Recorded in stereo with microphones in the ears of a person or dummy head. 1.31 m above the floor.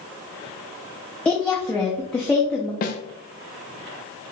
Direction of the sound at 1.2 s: 5° left (ahead or behind).